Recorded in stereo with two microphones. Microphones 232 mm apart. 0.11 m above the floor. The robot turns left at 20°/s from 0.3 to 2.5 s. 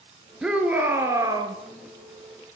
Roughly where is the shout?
Centre.